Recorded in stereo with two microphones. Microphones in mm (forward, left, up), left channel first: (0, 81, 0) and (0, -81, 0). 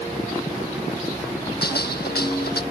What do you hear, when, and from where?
1.6 s a gunshot: 80° left